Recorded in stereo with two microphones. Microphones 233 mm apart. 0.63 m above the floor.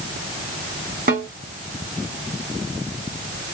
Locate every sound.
1.1 s a snare drum: 40° right (ahead or behind), 2.0 m